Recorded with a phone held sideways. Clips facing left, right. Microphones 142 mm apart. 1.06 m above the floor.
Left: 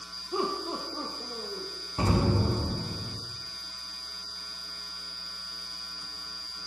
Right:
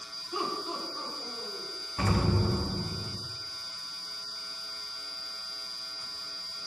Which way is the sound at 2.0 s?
25° left (ahead or behind).